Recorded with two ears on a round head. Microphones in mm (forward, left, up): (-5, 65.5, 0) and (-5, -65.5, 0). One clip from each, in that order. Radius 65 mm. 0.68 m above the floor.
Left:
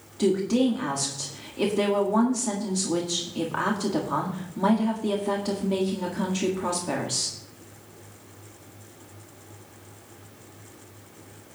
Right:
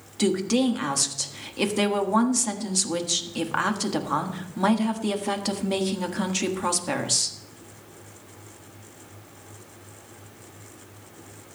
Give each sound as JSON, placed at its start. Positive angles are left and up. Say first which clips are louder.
{"t": 0.2, "sound": "a woman speaking", "louder": "even", "side_deg": -50, "distance_m": 1.4}